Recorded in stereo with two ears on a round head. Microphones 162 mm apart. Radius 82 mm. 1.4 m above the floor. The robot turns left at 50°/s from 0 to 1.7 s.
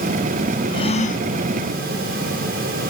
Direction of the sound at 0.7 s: 25° left (ahead or behind).